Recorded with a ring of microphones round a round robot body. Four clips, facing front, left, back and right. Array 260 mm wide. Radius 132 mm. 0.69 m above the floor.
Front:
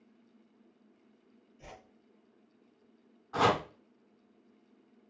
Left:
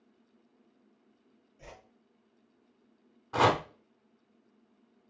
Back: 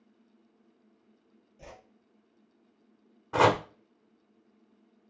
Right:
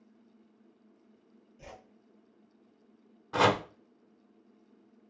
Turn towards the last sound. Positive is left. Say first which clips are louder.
# even, back 4 dB
turn(degrees=-170)